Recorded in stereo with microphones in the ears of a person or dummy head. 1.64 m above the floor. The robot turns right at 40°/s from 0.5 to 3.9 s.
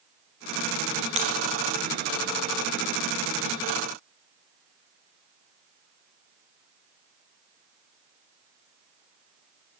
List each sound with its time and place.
1.2 s breaking glass: 35° right (ahead or behind), 4 m; by 1.4 s 40° right (ahead or behind), 4 m